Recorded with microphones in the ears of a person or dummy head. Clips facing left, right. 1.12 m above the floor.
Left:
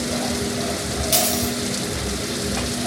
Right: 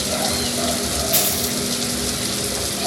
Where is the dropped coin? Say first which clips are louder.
Left 2 dB; 60° left (ahead or behind), 2.5 m.